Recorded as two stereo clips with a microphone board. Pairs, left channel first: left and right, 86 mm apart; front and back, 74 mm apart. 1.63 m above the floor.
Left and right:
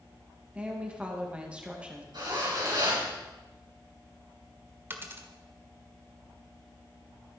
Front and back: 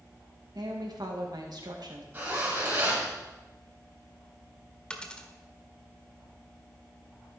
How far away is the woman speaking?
About 2 m.